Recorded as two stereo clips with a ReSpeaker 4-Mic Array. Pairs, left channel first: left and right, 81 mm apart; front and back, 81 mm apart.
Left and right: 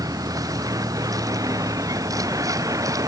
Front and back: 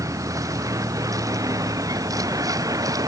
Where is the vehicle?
130° right; by 3.1 s 135° right.